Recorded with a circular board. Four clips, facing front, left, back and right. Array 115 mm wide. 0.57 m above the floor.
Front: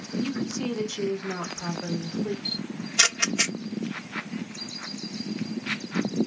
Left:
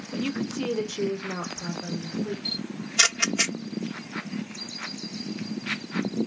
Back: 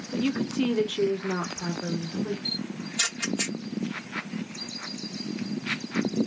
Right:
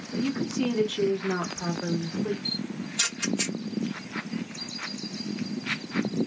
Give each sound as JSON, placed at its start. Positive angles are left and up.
{"t": 0.1, "sound": "a woman speaking", "azimuth_deg": 135, "distance_m": 1.0}
{"t": 2.5, "sound": "a camera shutter", "azimuth_deg": 40, "distance_m": 0.7}